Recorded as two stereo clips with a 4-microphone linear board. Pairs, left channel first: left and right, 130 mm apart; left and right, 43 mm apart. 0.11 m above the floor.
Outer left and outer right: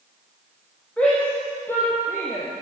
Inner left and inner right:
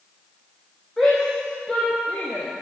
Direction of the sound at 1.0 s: 10° left (ahead or behind).